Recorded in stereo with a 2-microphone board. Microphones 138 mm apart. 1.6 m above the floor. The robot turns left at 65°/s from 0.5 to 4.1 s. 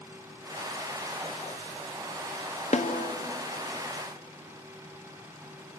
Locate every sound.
2.7 s a snare drum: 55° left (ahead or behind), 1.0 m; by 3.1 s 80° left, 1.0 m